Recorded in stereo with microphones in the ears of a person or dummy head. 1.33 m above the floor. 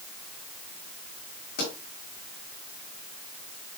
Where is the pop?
45° left (ahead or behind), 7 m.